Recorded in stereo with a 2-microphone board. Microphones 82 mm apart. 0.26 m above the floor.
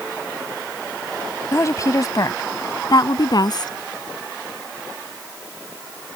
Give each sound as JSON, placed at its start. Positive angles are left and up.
{"t": 1.5, "sound": "a woman speaking", "side_deg": 40}